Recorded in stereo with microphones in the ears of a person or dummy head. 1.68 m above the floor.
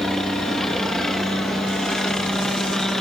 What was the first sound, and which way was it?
A helicopter, centre (ahead or behind).